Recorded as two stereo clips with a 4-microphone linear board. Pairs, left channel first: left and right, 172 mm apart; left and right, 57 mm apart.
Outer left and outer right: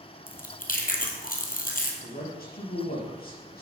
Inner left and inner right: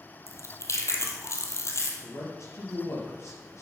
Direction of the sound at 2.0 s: 60° left (ahead or behind).